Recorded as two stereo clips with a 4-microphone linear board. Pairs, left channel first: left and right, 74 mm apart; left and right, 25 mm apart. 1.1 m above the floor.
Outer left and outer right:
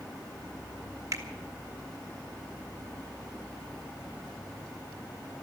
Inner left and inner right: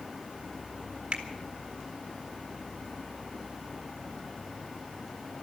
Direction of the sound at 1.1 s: 45° right (ahead or behind).